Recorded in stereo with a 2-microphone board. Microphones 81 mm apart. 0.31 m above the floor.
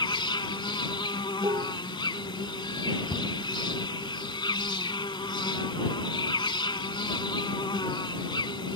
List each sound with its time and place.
0.0 s an insect: 80° left
1.4 s dishes clattering: 80° right
3.1 s a cupboard door: 40° left (ahead or behind)